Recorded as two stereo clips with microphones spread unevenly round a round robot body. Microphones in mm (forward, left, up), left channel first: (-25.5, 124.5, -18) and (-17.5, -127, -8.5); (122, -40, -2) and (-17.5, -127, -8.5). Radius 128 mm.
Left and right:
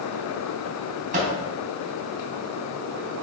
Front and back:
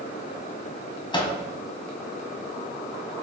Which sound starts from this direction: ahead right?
A microwave, at 1.1 s.